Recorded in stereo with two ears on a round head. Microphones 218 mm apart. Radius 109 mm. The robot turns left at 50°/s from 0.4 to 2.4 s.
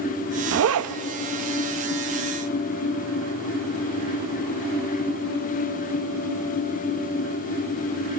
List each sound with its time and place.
0.5 s a zipper: 50° right (ahead or behind), 0.5 m; by 1.0 s 70° right (ahead or behind), 0.5 m